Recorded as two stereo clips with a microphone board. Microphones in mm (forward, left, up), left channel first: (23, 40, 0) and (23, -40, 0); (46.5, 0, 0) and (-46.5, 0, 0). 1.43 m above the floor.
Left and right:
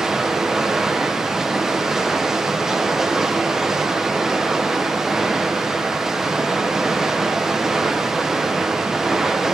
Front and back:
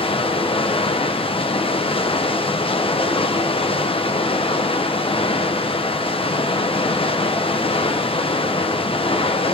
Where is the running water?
5° right, 0.8 m.